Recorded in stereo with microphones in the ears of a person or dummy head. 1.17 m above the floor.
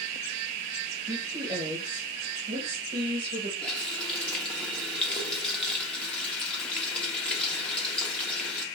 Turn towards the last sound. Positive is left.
turn(degrees=5)  # may be behind; listen again after turning